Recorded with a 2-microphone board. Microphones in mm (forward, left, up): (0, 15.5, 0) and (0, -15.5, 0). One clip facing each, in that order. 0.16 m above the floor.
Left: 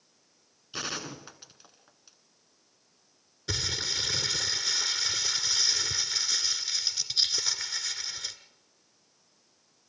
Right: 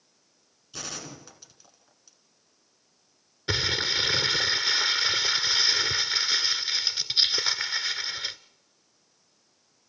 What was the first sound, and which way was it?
A gunshot, 25° left (ahead or behind).